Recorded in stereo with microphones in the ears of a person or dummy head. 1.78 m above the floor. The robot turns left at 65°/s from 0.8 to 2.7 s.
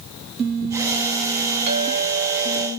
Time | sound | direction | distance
1.7 | a clink | 40° right | 2 m